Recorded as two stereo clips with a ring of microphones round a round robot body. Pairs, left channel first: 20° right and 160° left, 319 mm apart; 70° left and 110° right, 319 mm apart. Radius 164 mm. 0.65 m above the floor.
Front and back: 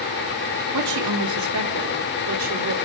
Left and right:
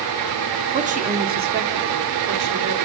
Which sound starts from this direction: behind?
A woman speaking, at 0.7 s.